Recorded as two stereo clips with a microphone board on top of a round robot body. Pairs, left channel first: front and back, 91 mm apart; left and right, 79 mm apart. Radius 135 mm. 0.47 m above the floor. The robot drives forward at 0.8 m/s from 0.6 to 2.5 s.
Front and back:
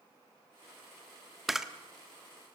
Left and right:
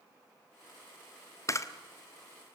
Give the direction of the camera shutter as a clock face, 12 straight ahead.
9 o'clock.